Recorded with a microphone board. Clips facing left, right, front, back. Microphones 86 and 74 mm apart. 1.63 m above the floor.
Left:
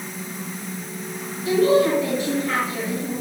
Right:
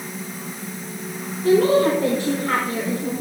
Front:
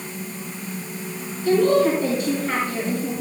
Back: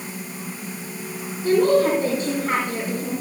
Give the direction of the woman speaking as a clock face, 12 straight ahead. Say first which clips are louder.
Right 1 dB, even; 4 o'clock.